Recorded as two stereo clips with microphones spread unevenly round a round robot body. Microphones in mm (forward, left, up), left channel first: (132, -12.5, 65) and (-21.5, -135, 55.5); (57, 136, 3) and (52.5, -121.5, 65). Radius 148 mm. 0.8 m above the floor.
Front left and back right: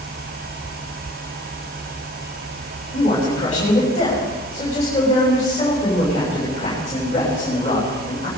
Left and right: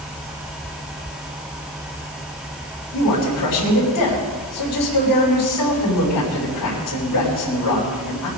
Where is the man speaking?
105° left, 5 m.